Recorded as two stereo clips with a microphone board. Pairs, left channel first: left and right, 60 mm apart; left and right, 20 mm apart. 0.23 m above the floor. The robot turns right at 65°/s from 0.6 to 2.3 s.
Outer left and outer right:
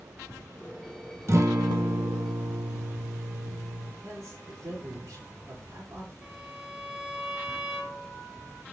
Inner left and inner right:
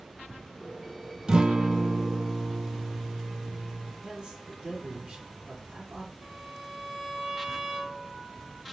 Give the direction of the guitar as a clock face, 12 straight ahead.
4 o'clock.